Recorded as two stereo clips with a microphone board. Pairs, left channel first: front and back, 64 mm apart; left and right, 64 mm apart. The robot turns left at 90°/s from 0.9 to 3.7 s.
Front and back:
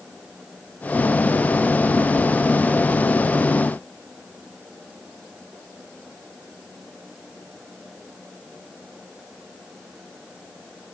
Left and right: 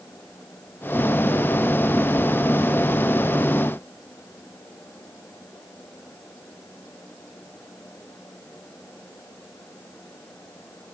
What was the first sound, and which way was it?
Only background noise.